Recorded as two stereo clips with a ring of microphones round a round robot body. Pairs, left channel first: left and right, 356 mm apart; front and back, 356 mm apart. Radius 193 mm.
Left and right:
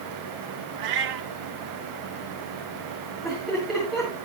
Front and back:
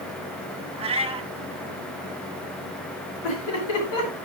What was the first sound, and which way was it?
A cat meowing, 105° right.